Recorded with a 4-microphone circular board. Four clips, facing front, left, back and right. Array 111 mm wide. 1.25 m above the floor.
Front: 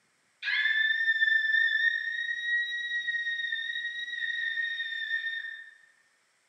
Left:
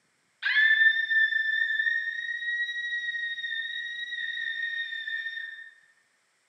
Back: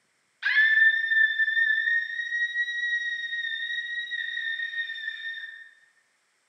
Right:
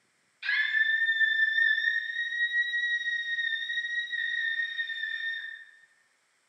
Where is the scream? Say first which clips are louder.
Left 5 dB, back 7 dB; 145° left, 1.1 m; by 5.5 s 110° right, 2.5 m.